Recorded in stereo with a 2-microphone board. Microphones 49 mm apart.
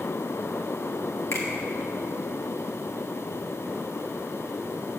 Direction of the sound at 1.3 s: 60° left (ahead or behind).